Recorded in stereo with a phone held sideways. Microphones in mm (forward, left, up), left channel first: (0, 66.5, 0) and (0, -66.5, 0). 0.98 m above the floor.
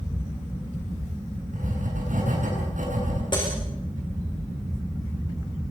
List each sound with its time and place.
1.5 s writing: 75° right (ahead or behind), 9 m
3.3 s breaking glass: 35° left (ahead or behind), 8 m